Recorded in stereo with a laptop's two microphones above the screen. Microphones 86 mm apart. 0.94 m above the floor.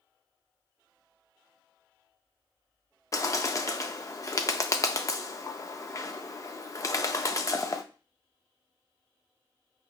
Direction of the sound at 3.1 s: 40° left (ahead or behind).